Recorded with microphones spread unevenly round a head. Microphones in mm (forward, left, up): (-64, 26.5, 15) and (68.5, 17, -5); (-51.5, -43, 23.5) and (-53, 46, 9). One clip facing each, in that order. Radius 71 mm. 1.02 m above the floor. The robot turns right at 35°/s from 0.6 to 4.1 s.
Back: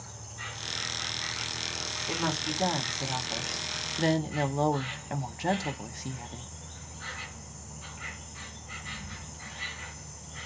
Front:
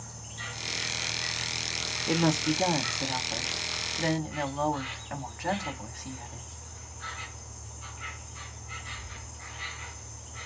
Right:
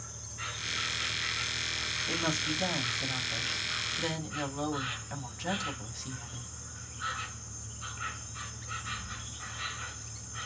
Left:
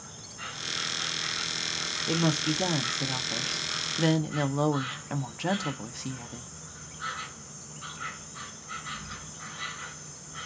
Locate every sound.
0.0 s an insect: 20° left, 2 m; by 10.5 s 145° left, 2 m
2.1 s a woman speaking: 45° left, 0.6 m; by 6.5 s 115° left, 0.6 m